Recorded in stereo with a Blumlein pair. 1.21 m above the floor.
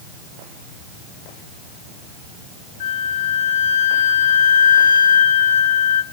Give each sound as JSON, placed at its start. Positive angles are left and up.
{"t": 2.8, "sound": "a flute", "azimuth_deg": 55, "distance_m": 2.0}